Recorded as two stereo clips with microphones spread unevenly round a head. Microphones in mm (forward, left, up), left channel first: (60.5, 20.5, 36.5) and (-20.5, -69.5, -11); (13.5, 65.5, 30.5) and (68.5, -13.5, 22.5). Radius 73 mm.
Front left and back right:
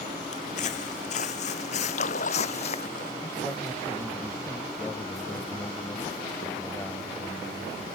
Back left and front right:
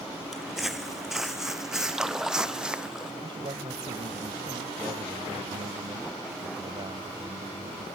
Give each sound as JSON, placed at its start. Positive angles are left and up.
{"t": 0.3, "sound": "footsteps", "azimuth_deg": 35}
{"t": 1.9, "sound": "a splash", "azimuth_deg": 30}
{"t": 3.2, "sound": "a man speaking", "azimuth_deg": -20}